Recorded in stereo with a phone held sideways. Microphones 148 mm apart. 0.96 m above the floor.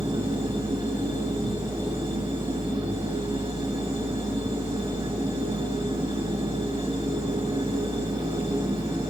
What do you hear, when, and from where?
0.0 s a machine running: 30° right (ahead or behind), 9 m